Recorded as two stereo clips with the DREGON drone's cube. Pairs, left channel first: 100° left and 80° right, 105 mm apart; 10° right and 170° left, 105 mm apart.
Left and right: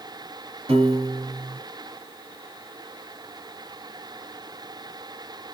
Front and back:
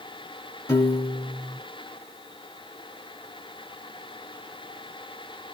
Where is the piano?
70° right, 2.5 m.